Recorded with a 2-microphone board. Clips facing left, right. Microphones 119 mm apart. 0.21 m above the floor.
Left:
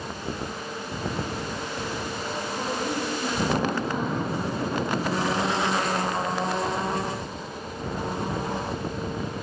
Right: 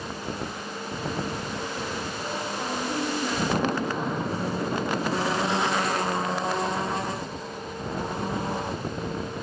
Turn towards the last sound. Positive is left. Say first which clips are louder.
# left 1 dB
turn(degrees=55)  # may be behind; listen again after turning